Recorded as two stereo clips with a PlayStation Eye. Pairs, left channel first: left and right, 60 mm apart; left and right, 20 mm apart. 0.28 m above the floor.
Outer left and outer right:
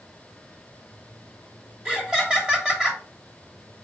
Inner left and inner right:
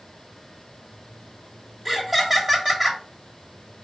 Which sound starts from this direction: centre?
Laughter, at 1.9 s.